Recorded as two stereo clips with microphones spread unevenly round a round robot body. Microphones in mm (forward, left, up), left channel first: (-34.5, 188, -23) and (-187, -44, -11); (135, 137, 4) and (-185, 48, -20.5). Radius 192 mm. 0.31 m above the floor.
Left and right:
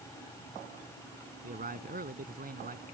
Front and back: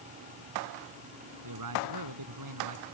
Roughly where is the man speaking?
Behind.